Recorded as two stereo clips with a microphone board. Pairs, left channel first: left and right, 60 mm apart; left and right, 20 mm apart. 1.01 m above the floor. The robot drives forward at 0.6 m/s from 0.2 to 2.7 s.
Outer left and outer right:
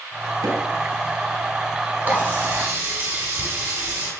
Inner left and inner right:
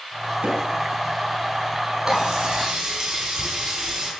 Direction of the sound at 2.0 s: 35° right (ahead or behind).